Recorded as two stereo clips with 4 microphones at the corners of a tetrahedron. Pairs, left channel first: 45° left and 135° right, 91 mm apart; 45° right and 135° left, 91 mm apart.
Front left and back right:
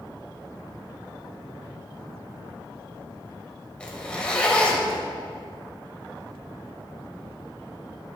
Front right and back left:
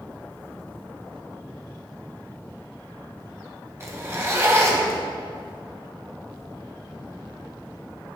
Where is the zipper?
115° left, 1.0 m.